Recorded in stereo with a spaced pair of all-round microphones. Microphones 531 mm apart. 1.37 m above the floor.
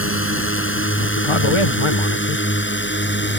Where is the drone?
25° left (ahead or behind); by 3.4 s 20° left (ahead or behind).